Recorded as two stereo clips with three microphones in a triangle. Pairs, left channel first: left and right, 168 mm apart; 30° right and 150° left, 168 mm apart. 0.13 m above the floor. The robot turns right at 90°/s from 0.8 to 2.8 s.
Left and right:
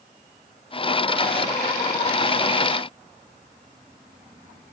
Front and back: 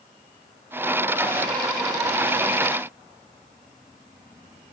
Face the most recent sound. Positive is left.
No sound to turn to.